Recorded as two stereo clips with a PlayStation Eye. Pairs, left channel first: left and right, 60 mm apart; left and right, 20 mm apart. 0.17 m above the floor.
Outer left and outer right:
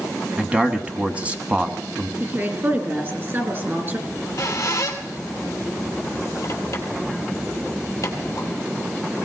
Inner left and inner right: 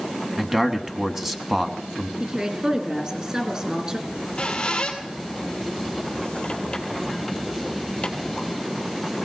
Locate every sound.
0.4 s a man speaking: 20° right (ahead or behind), 1.1 m
2.2 s a woman speaking: 35° right (ahead or behind), 3 m
4.1 s a squeak: 45° left (ahead or behind), 2.5 m